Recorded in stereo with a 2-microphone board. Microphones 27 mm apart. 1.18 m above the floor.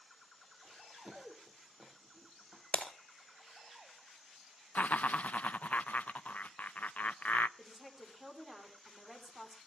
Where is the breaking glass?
45° left (ahead or behind), 1.7 m.